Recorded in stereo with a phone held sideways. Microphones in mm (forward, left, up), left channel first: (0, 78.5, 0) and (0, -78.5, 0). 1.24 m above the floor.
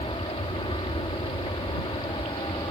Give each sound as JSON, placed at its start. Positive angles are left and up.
{"t": 0.0, "sound": "an aircraft", "side_deg": 35}